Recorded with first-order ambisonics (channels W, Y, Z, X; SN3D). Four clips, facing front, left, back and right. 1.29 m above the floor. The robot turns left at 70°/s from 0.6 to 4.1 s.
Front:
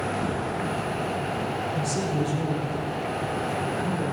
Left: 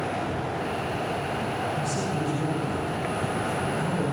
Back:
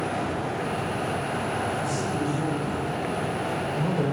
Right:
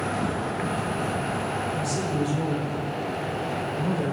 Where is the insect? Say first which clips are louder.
Right 2 dB, even; 65° right, 1.8 m; by 4.1 s 50° left, 1.8 m.